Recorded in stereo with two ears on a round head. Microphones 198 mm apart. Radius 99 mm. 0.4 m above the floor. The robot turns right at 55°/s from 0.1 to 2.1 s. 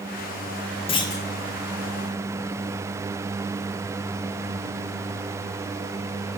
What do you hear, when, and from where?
0.9 s a clunk: 25° left (ahead or behind), 0.7 m; by 1.2 s 10° left (ahead or behind), 0.7 m